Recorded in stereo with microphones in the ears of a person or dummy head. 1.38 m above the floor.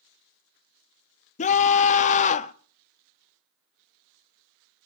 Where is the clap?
I don't hear a clap.